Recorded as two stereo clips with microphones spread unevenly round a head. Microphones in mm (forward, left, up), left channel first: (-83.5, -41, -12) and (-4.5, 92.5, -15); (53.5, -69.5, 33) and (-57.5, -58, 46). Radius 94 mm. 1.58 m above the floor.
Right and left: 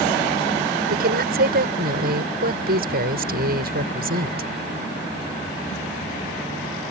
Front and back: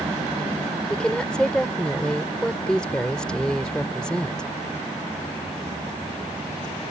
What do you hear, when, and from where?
0.9 s a woman speaking: 80° left